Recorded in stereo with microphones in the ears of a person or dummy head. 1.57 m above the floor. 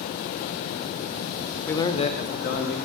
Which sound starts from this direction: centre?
A man speaking, at 1.7 s.